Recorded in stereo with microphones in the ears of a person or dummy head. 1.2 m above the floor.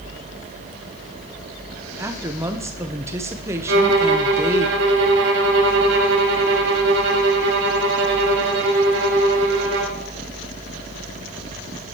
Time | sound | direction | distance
2.0 | a woman speaking | 15° right (ahead or behind) | 0.8 m
3.7 | a violin | 65° right (ahead or behind) | 2 m